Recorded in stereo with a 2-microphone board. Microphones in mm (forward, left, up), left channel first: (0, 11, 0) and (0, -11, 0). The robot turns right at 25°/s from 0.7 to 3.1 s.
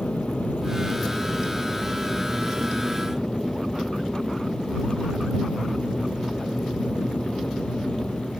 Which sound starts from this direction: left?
An aircraft, at 0.0 s.